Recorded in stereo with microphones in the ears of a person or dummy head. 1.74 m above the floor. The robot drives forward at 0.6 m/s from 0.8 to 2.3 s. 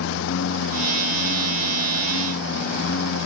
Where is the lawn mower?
80° left.